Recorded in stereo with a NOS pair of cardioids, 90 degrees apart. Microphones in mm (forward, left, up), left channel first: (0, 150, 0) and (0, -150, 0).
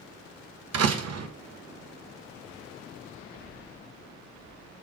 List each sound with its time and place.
0.7 s a door slam: 60° right, 1.2 m